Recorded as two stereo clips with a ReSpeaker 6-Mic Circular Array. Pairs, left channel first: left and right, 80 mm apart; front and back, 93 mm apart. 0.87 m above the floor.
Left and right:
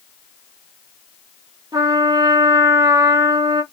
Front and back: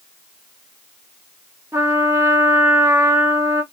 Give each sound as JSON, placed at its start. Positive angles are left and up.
{"t": 1.7, "sound": "a trumpet", "azimuth_deg": -120, "distance_m": 0.7}